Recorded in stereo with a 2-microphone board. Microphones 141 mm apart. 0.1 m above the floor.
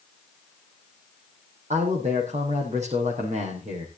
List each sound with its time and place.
1.7 s a man speaking: 55° right (ahead or behind), 4.5 m